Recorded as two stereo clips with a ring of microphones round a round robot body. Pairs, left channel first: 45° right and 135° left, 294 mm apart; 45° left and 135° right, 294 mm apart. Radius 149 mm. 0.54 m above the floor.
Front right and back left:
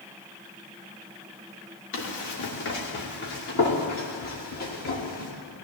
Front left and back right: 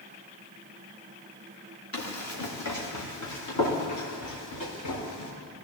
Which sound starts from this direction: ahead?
Running footsteps, at 1.9 s.